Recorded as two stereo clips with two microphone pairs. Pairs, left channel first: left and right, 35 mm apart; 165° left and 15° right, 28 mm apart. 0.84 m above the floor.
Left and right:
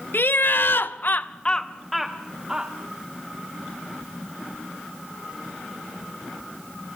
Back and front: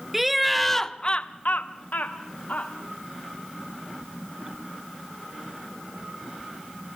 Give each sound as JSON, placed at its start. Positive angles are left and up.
{"t": 0.1, "sound": "laughter", "azimuth_deg": 70, "distance_m": 1.4}